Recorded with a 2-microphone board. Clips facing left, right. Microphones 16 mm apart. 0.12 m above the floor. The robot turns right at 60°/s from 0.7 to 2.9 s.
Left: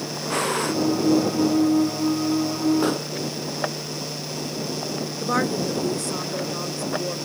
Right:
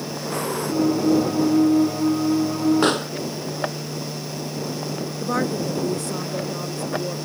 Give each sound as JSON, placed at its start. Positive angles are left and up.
{"t": 0.3, "sound": "breathing", "side_deg": 40}
{"t": 2.8, "sound": "a pop", "side_deg": -55}
{"t": 5.2, "sound": "a woman speaking", "side_deg": 20}